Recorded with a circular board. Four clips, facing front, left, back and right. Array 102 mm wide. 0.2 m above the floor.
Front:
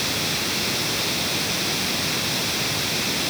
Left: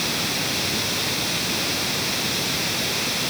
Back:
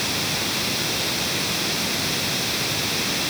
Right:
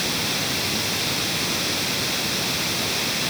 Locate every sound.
Only background noise.